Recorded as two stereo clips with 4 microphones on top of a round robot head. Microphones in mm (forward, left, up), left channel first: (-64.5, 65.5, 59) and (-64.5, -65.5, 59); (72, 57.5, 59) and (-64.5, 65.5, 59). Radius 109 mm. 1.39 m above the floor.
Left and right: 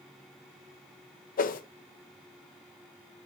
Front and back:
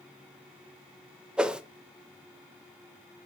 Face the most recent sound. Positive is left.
turn(degrees=95)